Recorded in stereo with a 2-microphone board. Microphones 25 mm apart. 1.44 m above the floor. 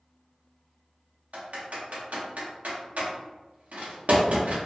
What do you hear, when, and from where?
1.3 s typing on a keyboard: 75° right (ahead or behind), 0.8 m